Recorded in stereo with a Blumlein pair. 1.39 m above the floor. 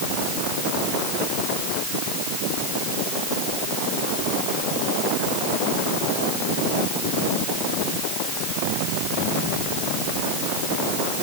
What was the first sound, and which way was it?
Only background noise.